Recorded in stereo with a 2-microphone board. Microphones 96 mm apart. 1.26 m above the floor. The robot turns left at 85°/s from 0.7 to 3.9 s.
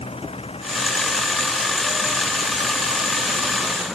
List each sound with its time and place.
0.0 s an engine running: 95° left; by 4.0 s 175° right